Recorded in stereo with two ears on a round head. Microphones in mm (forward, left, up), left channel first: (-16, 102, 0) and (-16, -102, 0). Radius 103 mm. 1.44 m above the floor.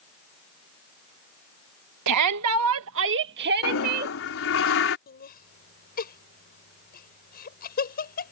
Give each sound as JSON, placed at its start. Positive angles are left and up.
{"t": 2.1, "sound": "a shout", "side_deg": -85}
{"t": 3.6, "sound": "a toilet flushing", "side_deg": 65}
{"t": 5.1, "sound": "laughter", "side_deg": 45}